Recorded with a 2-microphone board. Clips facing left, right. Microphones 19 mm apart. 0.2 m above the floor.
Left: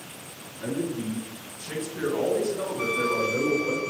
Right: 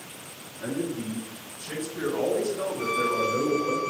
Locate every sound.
0.6 s a man speaking: 10° left (ahead or behind), 2 m
2.8 s a trumpet: 35° left (ahead or behind), 0.9 m